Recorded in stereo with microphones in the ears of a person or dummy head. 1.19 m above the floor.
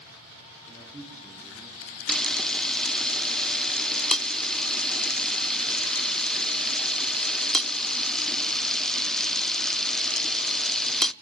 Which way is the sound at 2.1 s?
5° right (ahead or behind).